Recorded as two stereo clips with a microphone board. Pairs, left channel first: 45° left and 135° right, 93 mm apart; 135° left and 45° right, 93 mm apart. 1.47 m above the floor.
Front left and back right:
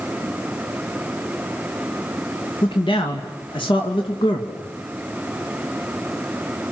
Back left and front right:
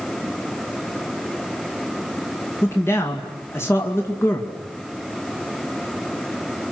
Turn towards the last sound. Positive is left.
turn(degrees=70)